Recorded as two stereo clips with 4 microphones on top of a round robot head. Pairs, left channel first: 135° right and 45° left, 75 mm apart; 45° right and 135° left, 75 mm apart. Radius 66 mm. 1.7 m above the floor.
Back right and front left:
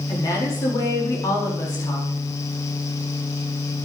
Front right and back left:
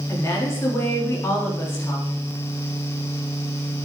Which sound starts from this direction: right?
A woman speaking, at 0.1 s.